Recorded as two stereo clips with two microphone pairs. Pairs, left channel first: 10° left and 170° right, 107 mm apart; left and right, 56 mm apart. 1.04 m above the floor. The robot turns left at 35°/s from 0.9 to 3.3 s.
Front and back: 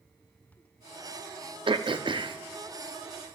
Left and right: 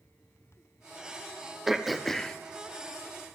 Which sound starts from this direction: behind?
Throat clearing, at 1.7 s.